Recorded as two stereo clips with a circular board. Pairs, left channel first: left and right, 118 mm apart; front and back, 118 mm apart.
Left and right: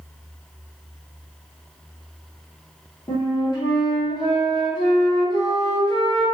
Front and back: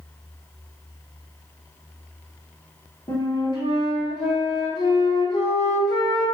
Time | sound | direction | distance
3.1 | a flute | 45° left | 0.9 m